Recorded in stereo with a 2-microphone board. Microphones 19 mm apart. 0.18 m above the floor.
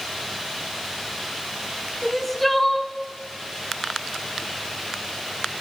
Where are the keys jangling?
I don't hear keys jangling.